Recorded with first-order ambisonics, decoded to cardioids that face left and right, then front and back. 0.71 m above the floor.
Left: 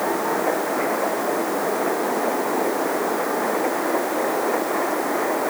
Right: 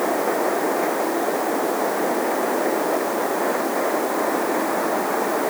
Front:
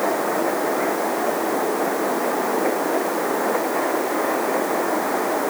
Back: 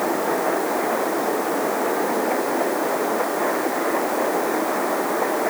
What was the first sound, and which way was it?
Only background noise.